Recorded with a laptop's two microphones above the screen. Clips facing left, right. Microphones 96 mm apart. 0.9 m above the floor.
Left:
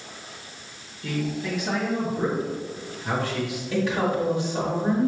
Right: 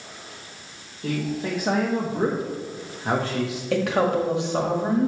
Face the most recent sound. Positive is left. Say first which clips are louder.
# right 3 dB
turn(degrees=-65)  # may be behind; listen again after turning